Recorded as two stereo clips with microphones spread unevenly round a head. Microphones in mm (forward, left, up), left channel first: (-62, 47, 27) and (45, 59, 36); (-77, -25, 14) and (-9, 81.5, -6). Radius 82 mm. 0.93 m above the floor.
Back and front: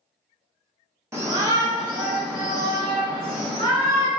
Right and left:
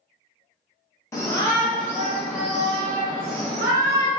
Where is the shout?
50° right, 1.0 m; by 4.1 s 45° right, 3 m.